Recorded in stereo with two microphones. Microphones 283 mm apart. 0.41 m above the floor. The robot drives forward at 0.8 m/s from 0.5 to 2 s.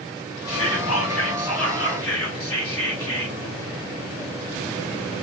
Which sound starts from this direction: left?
Whispering, at 0.5 s.